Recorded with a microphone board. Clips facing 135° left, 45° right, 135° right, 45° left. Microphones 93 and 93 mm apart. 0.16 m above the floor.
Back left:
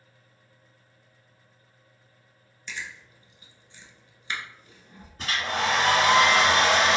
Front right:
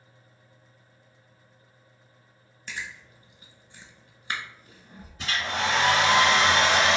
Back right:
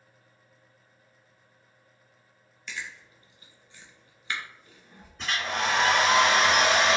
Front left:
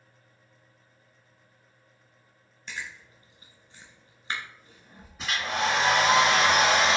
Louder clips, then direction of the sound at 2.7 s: Front right 1 dB, even; 5° right.